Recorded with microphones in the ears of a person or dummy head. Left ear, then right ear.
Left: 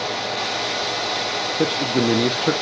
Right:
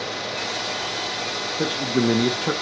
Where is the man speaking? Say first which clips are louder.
Left 2 dB; 10° left (ahead or behind), 1.0 m.